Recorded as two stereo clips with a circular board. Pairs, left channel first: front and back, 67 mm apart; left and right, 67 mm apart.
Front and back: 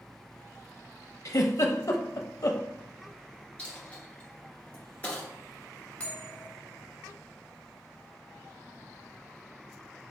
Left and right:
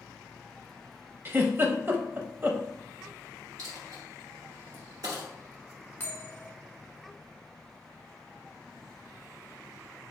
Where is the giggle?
35° right, 0.6 m.